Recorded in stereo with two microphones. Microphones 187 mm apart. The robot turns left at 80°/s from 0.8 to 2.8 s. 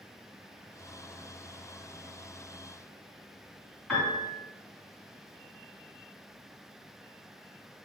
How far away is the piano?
About 2.0 m.